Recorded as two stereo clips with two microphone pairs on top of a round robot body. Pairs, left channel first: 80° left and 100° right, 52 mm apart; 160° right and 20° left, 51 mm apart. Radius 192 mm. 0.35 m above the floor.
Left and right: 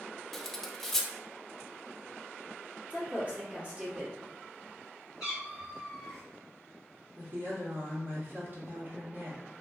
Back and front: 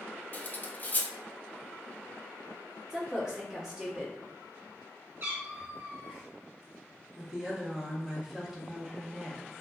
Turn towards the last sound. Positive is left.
turn(degrees=-50)